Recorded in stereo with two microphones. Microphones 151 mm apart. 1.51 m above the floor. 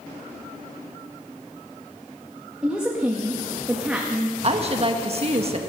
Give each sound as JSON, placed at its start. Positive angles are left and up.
{"t": 2.6, "sound": "a woman speaking", "side_deg": -5, "distance_m": 1.7}
{"t": 4.4, "sound": "a woman speaking", "side_deg": -40, "distance_m": 1.5}